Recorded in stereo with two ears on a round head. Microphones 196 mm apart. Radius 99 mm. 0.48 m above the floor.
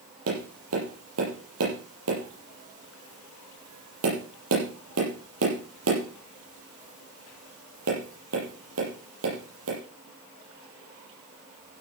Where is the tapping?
75° right (ahead or behind), 7 m.